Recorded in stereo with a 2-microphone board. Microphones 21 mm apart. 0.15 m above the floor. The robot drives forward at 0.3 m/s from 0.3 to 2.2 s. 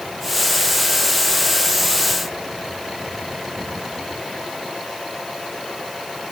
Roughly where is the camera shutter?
I don't hear a camera shutter.